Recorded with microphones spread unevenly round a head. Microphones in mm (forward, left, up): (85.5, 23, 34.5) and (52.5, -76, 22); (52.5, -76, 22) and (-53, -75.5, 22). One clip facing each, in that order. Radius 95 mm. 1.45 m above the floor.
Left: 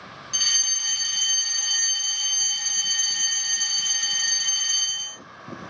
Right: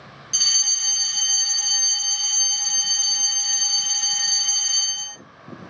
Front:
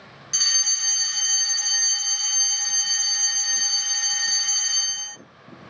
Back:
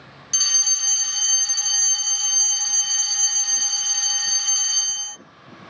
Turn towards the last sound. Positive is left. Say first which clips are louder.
# left 1 dB, front 1 dB
turn(degrees=-110)